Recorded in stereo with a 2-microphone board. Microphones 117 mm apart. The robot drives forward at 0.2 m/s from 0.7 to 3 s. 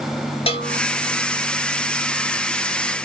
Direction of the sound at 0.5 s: 55° left (ahead or behind).